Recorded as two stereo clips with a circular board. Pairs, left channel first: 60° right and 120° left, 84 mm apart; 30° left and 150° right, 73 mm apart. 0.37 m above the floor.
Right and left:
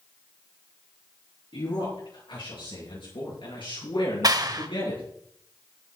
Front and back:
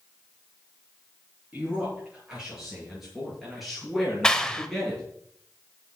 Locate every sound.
1.5 s a man speaking: 70° right, 7.5 m; by 5.0 s 50° right, 6.5 m
4.2 s a clap: 110° left, 1.0 m